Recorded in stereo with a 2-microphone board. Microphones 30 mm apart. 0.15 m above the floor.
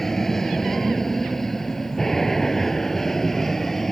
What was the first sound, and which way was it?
An aircraft, 10° left (ahead or behind).